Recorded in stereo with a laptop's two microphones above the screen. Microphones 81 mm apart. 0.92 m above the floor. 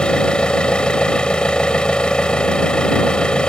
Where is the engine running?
10° left (ahead or behind).